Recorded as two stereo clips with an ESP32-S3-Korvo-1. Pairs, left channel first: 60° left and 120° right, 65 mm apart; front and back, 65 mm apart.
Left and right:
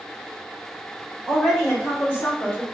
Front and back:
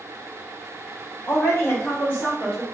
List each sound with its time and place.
1.3 s a woman speaking: 30° right, 2.0 m; by 2.6 s 70° left, 1.6 m